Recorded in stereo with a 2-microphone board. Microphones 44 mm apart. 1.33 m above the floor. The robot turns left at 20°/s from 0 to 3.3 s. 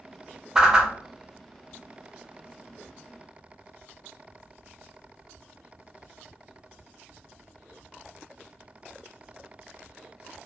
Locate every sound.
0.6 s a whoosh: 15° right (ahead or behind), 0.6 m; by 0.9 s 20° right (ahead or behind), 0.6 m